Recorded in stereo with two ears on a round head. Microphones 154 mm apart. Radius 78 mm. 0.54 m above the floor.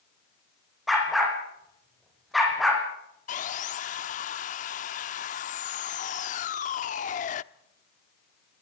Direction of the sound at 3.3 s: 45° left (ahead or behind).